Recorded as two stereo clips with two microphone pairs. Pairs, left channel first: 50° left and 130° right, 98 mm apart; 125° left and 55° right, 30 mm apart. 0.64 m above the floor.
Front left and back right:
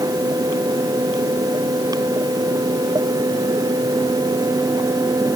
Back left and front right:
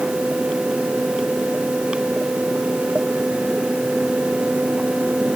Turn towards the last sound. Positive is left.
No sound to turn to.